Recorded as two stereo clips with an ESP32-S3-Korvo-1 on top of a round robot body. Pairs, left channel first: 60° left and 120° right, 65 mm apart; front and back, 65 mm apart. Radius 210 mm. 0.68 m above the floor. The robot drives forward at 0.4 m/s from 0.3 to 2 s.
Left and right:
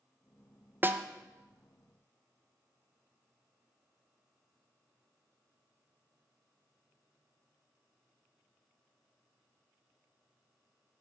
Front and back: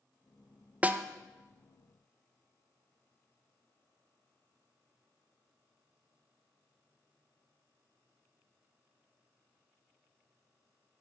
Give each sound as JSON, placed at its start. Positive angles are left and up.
{"t": 0.8, "sound": "a snare drum", "azimuth_deg": -135, "distance_m": 0.6}